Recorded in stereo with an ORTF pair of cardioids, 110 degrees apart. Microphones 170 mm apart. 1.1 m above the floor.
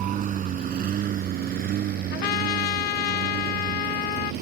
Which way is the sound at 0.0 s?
50° right.